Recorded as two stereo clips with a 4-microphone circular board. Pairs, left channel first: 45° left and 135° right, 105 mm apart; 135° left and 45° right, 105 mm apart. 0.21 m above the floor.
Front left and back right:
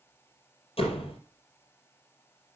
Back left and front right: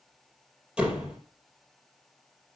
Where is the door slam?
35° left, 4 m.